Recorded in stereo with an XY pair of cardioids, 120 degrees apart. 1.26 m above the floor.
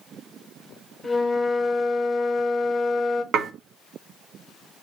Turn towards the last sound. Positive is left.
turn(degrees=-65)